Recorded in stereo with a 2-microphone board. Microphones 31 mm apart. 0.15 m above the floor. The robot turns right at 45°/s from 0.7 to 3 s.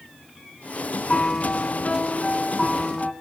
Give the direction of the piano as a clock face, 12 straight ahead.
9 o'clock.